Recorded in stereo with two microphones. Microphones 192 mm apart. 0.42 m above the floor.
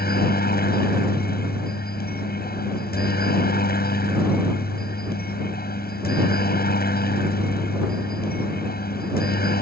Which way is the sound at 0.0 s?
50° left (ahead or behind).